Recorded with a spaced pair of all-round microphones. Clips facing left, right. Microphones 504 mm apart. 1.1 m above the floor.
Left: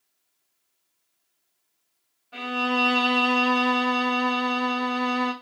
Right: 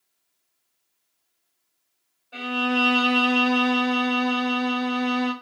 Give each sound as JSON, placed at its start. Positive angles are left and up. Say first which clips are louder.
{"t": 2.3, "sound": "a violin", "louder": "right 2 dB", "side_deg": 20, "distance_m": 1.6}